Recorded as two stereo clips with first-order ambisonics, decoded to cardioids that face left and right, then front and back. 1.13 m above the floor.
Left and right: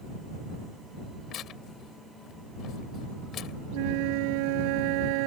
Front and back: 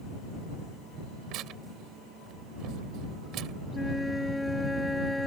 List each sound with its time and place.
1.3 s tearing paper: 140° left
3.7 s a flute: 85° right